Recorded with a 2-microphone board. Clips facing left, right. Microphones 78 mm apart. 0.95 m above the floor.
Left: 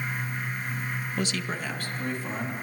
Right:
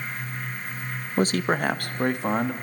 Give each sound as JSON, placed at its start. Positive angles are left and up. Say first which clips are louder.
{"t": 1.2, "sound": "a man speaking", "louder": "right 11 dB", "side_deg": -35, "distance_m": 0.6}